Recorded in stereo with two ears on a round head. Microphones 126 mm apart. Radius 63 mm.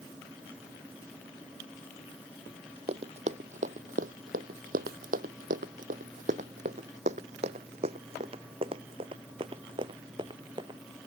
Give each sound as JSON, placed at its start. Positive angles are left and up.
{"t": 2.9, "sound": "running footsteps", "side_deg": -45}